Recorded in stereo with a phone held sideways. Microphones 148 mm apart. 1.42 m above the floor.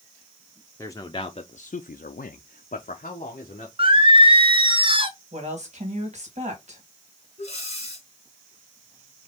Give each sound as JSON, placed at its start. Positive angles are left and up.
{"t": 0.8, "sound": "a man speaking", "side_deg": 20, "distance_m": 0.7}
{"t": 3.8, "sound": "singing", "side_deg": -35, "distance_m": 0.7}
{"t": 5.3, "sound": "a woman speaking", "side_deg": -50, "distance_m": 1.8}
{"t": 7.4, "sound": "breathing", "side_deg": 45, "distance_m": 2.5}